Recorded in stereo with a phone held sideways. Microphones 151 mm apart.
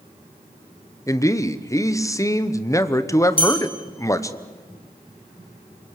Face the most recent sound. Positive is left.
turn(degrees=35)  # may be behind; listen again after turning